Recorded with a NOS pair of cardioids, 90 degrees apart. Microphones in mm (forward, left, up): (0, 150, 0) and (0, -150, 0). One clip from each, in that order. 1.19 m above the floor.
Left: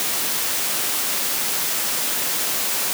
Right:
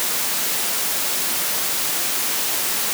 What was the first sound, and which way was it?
Only background noise.